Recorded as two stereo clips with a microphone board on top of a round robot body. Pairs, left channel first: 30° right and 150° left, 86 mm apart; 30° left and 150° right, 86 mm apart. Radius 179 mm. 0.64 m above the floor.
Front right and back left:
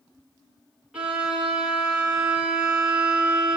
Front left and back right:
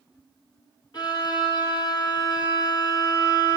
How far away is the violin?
About 3 m.